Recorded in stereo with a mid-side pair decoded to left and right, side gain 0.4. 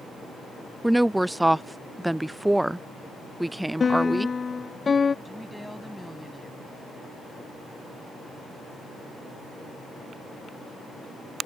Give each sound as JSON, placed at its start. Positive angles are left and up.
{"t": 0.8, "sound": "a woman speaking", "azimuth_deg": -10}
{"t": 3.8, "sound": "a piano", "azimuth_deg": 35}
{"t": 5.2, "sound": "a woman speaking", "azimuth_deg": 5}